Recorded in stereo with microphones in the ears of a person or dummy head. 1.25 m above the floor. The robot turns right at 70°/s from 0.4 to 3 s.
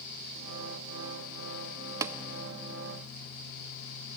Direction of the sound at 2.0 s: 20° right (ahead or behind).